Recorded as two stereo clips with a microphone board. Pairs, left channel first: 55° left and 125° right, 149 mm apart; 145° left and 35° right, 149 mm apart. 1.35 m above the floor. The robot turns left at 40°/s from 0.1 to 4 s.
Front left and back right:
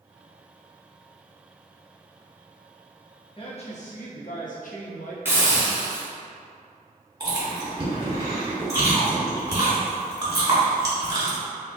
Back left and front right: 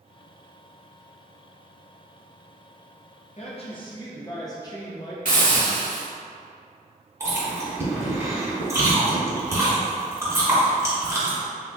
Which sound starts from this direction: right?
Chewing, at 7.2 s.